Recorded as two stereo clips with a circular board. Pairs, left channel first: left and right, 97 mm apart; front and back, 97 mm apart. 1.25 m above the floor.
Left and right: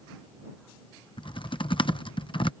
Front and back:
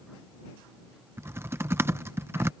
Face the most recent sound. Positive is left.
turn(degrees=115)